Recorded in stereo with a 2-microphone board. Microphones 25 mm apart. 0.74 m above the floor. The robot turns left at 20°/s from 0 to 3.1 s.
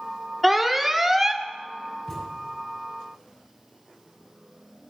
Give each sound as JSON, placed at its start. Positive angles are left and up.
{"t": 0.4, "sound": "an alarm", "side_deg": 0, "distance_m": 0.7}
{"t": 2.1, "sound": "a thud", "side_deg": 25, "distance_m": 6.0}